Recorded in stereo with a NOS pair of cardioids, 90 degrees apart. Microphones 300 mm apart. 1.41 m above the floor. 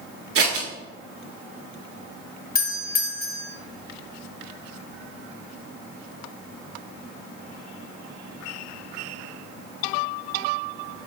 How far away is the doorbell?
About 1.4 m.